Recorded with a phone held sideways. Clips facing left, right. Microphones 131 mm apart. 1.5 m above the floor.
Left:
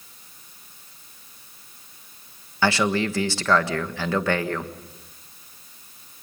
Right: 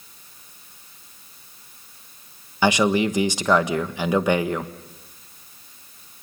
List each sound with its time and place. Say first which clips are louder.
2.6 s a man speaking: right 3 dB; 15° right (ahead or behind), 1.4 m